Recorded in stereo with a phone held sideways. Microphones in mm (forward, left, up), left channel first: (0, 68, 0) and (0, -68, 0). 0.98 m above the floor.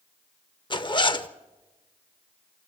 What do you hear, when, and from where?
0.7 s a zipper: 35° left (ahead or behind), 0.7 m